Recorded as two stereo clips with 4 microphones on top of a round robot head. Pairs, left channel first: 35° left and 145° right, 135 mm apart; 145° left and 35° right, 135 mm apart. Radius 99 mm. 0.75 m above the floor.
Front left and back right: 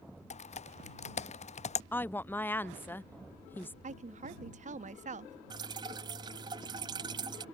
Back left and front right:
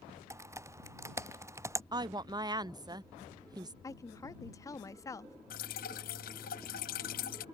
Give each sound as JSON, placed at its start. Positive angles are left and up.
{"t": 0.3, "sound": "typing on a keyboard", "azimuth_deg": 30}
{"t": 1.9, "sound": "a woman speaking", "azimuth_deg": -25}
{"t": 3.8, "sound": "a woman speaking", "azimuth_deg": -155}
{"t": 5.5, "sound": "dripping", "azimuth_deg": 155}